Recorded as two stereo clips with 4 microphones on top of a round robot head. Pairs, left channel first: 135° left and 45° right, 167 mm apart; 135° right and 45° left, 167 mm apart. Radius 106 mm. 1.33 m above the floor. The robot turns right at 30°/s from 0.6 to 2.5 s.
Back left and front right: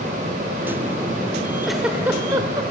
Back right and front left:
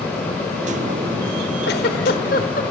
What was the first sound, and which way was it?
A giggle, 135° right.